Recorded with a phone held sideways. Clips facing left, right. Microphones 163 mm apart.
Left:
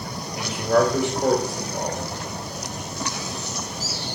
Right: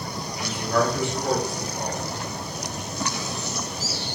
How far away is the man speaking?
About 2.5 m.